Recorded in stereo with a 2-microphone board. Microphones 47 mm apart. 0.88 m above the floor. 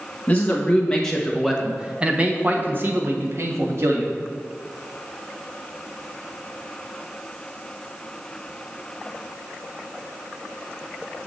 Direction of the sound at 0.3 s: 25° left (ahead or behind).